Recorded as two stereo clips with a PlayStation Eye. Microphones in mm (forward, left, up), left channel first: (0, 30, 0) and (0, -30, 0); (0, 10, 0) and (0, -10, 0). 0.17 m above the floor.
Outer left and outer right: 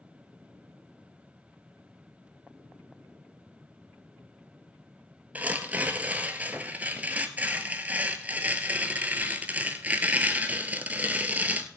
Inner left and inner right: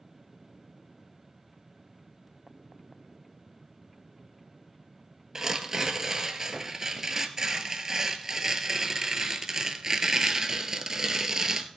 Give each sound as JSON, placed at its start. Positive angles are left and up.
{"t": 5.3, "sound": "tearing paper", "side_deg": -25, "distance_m": 0.9}